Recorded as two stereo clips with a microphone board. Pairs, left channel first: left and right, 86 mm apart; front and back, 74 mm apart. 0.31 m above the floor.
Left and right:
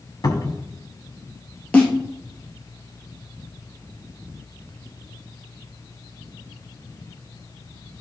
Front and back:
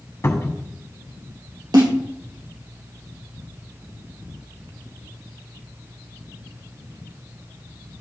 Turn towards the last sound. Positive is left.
turn(degrees=165)